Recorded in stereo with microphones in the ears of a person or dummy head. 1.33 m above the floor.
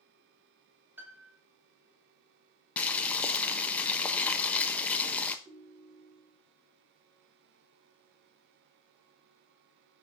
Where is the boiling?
10° left (ahead or behind), 1.0 m.